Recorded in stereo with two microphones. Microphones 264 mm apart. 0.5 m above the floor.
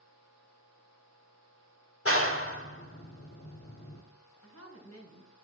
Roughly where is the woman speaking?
Left.